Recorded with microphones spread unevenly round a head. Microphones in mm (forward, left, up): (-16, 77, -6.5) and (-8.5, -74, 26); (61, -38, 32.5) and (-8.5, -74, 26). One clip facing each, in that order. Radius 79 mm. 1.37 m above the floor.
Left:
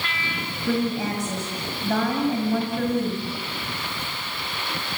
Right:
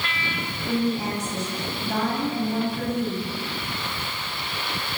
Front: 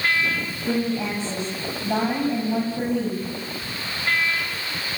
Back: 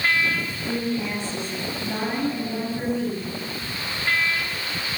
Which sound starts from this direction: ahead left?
A woman speaking, at 0.7 s.